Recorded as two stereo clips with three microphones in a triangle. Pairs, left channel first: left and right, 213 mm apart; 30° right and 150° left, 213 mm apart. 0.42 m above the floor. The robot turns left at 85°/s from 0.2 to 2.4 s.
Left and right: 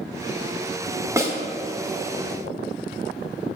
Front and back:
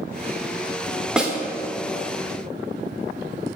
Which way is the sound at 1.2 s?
130° right.